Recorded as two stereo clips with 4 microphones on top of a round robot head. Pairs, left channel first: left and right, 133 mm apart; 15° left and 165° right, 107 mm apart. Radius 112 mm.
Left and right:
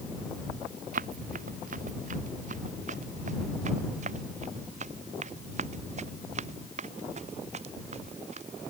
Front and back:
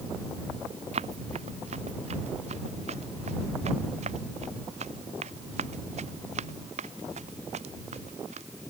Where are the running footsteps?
125° right; by 8.4 s 135° right.